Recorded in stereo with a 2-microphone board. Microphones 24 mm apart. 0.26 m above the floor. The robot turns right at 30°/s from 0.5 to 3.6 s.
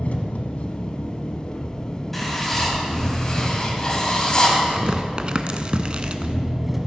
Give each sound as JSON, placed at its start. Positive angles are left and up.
{"t": 0.0, "sound": "an engine running", "azimuth_deg": 95, "distance_m": 1.1}
{"t": 2.1, "sound": "writing", "azimuth_deg": 10, "distance_m": 1.8}
{"t": 4.7, "sound": "tearing paper", "side_deg": -40, "distance_m": 0.6}